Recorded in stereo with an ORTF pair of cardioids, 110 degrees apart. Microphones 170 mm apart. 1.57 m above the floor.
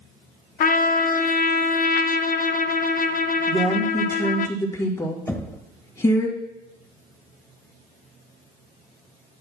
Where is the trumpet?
55° left, 0.6 m.